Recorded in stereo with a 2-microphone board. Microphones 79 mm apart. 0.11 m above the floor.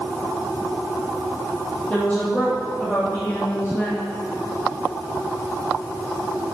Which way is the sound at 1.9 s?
20° left (ahead or behind).